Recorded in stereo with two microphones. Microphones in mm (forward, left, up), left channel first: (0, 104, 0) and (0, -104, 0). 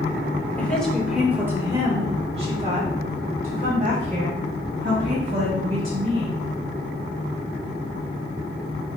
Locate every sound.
0.6 s a woman speaking: 10° left (ahead or behind), 1.5 m; by 6.4 s 60° right (ahead or behind), 3.5 m